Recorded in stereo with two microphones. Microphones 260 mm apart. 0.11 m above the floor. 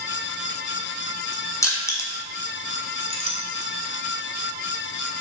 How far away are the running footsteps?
No running footsteps in this recording.